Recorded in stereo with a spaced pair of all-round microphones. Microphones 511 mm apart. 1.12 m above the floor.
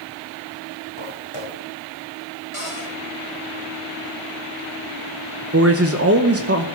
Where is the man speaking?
30° right (ahead or behind), 0.8 m.